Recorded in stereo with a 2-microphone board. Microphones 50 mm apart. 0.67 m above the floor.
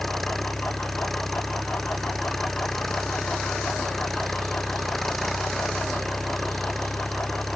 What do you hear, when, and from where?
0.0 s an engine running: 5° left (ahead or behind)